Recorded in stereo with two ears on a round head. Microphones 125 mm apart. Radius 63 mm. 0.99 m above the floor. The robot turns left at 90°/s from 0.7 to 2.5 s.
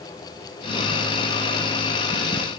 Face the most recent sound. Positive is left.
No sound to turn to.